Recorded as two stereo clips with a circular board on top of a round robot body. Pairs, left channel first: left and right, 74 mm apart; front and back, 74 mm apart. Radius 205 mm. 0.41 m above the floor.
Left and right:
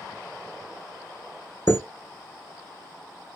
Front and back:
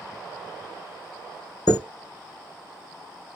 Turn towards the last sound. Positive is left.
turn(degrees=30)